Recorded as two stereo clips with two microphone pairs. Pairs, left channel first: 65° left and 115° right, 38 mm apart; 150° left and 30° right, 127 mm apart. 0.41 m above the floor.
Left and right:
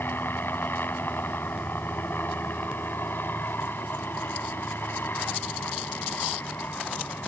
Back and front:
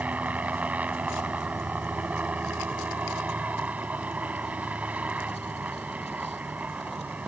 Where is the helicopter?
50° left.